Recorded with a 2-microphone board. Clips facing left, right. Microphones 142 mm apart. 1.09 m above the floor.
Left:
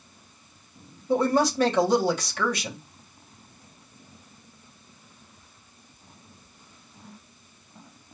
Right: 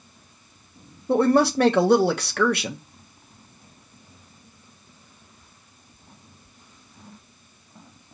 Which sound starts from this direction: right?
A woman speaking, at 1.1 s.